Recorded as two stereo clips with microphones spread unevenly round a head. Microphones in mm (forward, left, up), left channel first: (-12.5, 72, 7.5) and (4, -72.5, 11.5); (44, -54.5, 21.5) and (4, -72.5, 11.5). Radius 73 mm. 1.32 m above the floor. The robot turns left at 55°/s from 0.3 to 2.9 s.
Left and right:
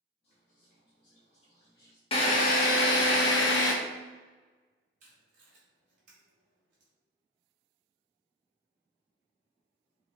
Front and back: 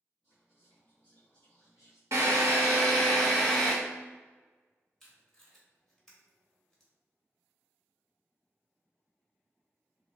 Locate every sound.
0.2 s whispering: 115° left, 1.1 m; by 2.0 s 20° left, 1.1 m
2.1 s a drill: 150° left, 0.8 m; by 3.7 s 110° left, 0.8 m
5.0 s tape being pulled: 50° right, 1.9 m